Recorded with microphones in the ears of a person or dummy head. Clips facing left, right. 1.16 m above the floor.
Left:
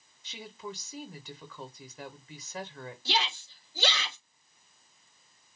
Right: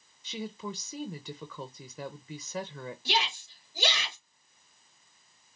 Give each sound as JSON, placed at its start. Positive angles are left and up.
{"t": 0.2, "sound": "a woman speaking", "side_deg": -75, "distance_m": 0.7}
{"t": 3.0, "sound": "a shout", "side_deg": -15, "distance_m": 2.5}